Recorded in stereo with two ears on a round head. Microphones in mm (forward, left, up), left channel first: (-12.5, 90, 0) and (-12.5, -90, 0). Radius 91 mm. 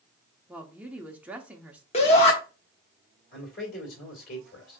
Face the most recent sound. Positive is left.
turn(degrees=45)  # may be behind; listen again after turning